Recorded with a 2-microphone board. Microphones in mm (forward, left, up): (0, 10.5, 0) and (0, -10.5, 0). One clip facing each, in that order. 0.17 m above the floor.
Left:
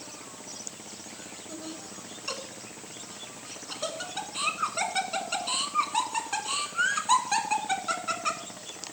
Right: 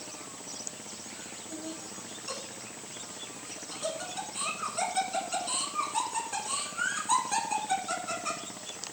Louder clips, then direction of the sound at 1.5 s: Even; 30° left (ahead or behind).